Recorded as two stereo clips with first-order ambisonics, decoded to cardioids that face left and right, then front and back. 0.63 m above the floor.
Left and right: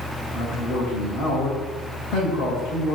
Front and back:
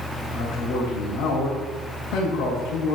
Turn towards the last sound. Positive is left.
turn(degrees=45)